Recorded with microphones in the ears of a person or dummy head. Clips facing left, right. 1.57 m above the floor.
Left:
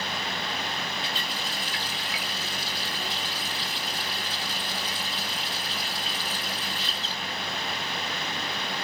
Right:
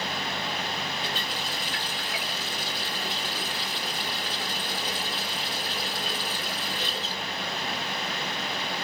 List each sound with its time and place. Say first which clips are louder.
1.0 s a running tap: right 1 dB; 55° right (ahead or behind), 3 m